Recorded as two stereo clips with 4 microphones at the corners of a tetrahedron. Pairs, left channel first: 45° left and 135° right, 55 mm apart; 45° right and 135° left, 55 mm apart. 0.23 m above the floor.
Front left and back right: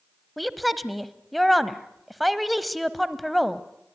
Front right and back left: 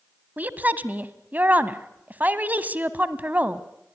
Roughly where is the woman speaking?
Behind left.